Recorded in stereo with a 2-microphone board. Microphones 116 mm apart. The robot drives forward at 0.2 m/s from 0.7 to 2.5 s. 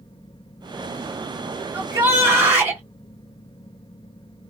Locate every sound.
1.7 s a shout: 20° right (ahead or behind), 1.9 m